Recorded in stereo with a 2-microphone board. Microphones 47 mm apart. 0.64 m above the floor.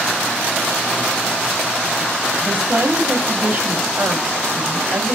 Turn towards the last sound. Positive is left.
turn(degrees=-55)  # may be behind; listen again after turning